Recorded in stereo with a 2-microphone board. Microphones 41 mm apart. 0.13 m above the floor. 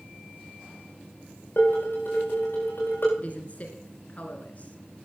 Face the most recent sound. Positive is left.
turn(degrees=40)  # may be behind; listen again after turning